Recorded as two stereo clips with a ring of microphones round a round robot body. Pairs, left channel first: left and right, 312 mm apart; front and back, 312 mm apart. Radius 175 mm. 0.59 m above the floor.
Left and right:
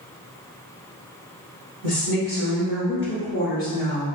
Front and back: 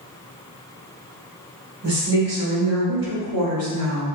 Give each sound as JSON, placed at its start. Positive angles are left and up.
{"t": 1.8, "sound": "a woman speaking", "azimuth_deg": 135, "distance_m": 1.7}